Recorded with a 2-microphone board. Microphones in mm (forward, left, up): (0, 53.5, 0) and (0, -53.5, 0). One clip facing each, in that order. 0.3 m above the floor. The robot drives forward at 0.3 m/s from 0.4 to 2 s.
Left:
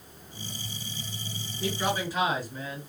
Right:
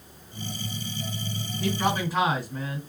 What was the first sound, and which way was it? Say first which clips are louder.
A man speaking: right 3 dB; 55° right (ahead or behind).